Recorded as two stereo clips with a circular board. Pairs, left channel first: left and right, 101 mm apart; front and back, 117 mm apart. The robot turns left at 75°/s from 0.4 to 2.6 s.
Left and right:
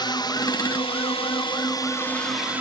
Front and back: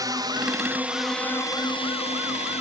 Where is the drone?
125° left; by 2.6 s 15° right.